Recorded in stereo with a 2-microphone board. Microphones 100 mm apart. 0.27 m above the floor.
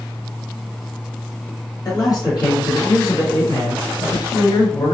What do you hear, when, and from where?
1.9 s a man speaking: 40° left (ahead or behind), 1.9 m